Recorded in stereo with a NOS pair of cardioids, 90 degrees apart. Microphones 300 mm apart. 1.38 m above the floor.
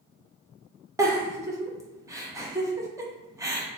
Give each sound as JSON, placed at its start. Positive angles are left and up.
{"t": 1.0, "sound": "a giggle", "azimuth_deg": -10, "distance_m": 0.7}